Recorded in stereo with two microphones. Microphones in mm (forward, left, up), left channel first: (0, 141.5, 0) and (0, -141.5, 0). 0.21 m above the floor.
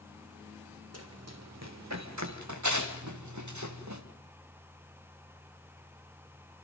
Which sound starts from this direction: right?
Running footsteps, at 0.9 s.